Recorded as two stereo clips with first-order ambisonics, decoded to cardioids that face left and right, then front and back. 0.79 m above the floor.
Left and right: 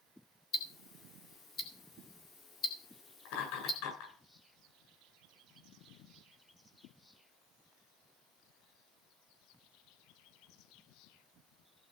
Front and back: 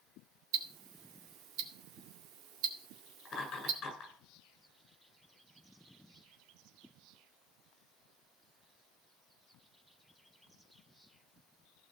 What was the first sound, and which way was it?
Ticking, 155° left.